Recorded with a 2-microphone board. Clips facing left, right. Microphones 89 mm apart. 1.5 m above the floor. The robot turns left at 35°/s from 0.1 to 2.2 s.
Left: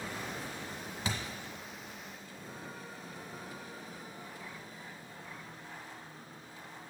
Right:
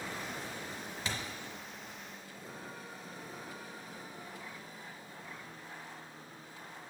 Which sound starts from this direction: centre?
A thud, at 1.1 s.